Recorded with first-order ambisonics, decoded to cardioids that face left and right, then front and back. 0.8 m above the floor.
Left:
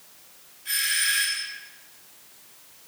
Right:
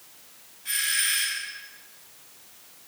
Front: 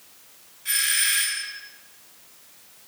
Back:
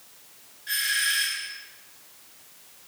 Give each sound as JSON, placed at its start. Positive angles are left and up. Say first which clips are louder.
{"t": 0.7, "sound": "a doorbell", "louder": "left 1 dB, front 2 dB", "azimuth_deg": -5, "distance_m": 8.5}